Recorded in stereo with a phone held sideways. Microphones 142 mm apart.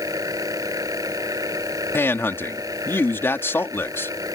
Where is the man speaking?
15° left (ahead or behind).